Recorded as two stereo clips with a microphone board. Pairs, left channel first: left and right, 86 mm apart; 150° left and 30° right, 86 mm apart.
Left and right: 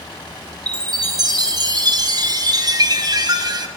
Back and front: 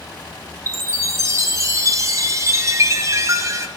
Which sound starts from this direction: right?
A chime, at 0.7 s.